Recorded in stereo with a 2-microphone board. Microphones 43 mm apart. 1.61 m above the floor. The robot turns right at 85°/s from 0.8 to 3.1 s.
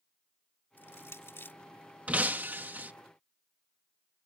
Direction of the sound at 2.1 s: 130° right.